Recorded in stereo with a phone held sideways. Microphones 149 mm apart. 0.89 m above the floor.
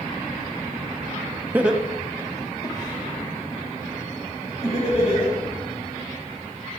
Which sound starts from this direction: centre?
Laughter, at 1.5 s.